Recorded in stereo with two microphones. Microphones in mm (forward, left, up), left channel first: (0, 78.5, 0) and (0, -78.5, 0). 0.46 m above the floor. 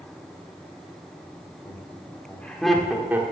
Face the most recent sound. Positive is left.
turn(degrees=-15)  # may be behind; listen again after turning